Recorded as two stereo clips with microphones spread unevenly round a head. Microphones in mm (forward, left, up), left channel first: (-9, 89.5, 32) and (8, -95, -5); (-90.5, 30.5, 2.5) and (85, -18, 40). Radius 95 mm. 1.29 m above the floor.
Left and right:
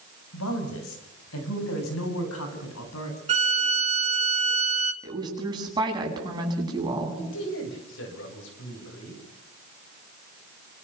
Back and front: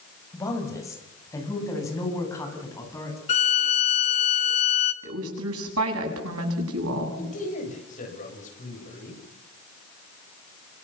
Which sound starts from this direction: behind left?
A man speaking, at 7.2 s.